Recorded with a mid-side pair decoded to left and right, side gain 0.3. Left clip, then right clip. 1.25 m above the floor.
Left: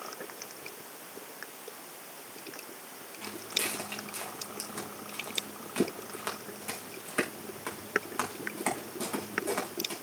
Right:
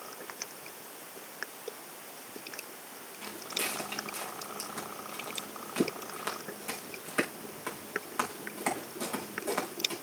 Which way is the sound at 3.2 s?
25° left.